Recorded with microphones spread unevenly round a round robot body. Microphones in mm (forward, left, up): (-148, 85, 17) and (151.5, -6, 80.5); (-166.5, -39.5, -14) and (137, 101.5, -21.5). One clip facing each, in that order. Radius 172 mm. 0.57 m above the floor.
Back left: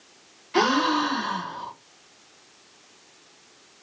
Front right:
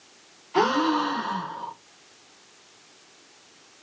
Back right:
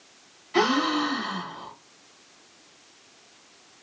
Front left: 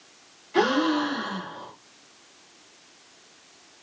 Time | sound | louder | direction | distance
0.5 | a gasp | even, front left 2 dB | 130° left | 1.0 m